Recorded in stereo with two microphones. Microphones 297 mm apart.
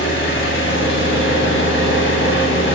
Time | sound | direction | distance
0.0 | an engine running | 40° left (ahead or behind) | 0.8 m